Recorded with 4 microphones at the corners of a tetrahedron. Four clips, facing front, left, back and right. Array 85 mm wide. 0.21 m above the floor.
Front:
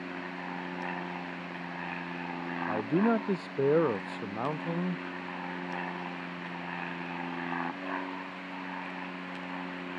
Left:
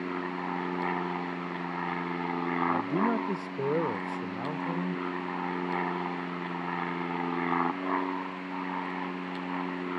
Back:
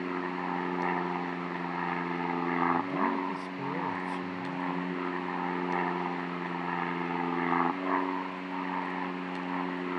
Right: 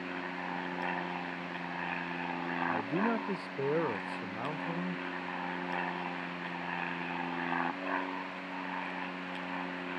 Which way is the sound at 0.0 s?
150° left.